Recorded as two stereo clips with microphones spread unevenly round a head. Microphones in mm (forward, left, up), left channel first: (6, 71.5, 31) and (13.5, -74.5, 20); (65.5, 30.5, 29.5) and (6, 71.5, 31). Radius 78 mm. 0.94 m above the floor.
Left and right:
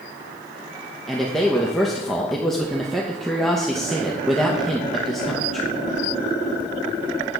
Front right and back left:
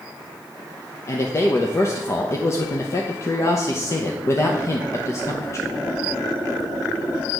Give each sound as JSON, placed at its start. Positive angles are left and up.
{"t": 1.1, "sound": "a man speaking", "azimuth_deg": 0, "distance_m": 0.9}